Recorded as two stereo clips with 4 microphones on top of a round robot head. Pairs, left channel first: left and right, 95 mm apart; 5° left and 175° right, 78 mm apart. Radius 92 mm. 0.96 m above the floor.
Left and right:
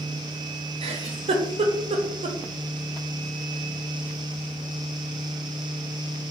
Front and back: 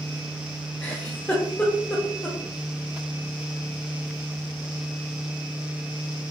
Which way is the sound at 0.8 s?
75° right.